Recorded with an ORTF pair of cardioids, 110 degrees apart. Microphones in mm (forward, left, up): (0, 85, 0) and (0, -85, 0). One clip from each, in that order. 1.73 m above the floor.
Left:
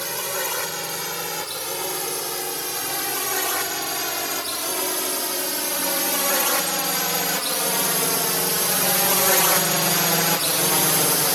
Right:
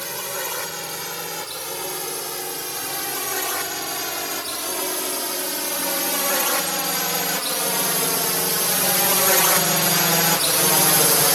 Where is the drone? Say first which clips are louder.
Left 2 dB; 10° left; by 11.4 s 30° right.